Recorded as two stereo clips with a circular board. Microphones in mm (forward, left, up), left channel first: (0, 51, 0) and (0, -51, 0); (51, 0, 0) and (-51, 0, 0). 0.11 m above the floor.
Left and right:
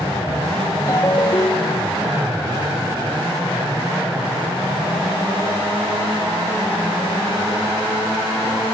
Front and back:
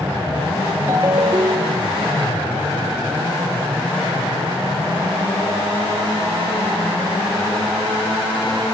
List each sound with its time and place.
0.9 s a ringtone: 135° left, 0.7 m